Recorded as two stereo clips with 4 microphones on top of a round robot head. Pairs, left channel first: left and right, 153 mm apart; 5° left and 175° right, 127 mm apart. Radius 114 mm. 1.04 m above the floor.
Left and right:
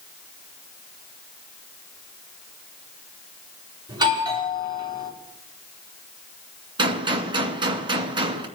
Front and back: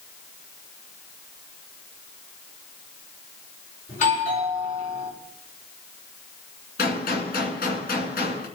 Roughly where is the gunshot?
Ahead right.